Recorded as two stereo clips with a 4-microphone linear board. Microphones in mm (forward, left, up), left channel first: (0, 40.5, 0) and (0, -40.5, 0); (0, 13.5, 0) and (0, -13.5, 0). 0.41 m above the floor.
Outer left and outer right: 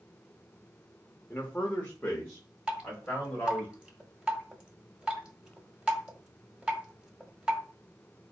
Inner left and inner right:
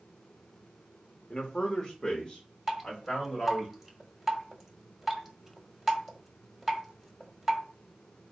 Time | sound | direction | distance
1.3 | a man speaking | 25° left (ahead or behind) | 0.8 m
2.7 | dripping | 10° right (ahead or behind) | 0.8 m